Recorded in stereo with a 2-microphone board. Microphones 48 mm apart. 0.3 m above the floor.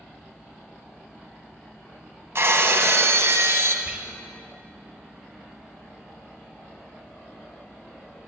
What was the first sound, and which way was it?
Breaking glass, 60° right (ahead or behind).